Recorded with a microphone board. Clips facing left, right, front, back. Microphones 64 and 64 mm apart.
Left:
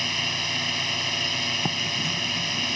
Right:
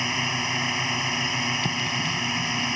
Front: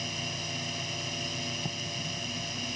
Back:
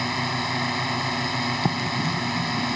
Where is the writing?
165° left.